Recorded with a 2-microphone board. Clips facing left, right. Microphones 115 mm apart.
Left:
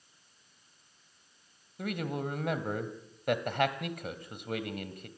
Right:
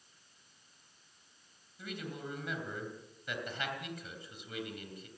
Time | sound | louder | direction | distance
1.8 | a man speaking | left 8 dB | 60° left (ahead or behind) | 2.5 m